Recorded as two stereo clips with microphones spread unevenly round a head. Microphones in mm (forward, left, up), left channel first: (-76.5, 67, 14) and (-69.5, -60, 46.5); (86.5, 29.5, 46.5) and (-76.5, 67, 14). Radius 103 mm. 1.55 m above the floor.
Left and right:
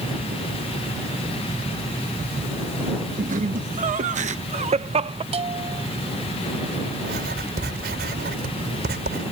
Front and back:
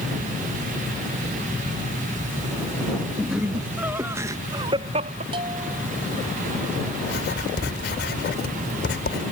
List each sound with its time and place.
3.2 s laughter: 105° right; by 5.2 s 135° right
5.3 s a bell: 125° right
7.0 s writing: 55° right